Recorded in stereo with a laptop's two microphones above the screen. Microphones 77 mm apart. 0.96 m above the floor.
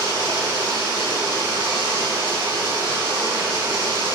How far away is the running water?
About 6 m.